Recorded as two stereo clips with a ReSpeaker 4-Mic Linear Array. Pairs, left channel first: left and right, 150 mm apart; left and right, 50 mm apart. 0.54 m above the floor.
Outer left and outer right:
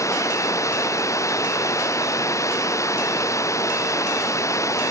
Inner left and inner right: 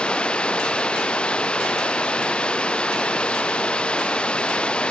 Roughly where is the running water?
Left.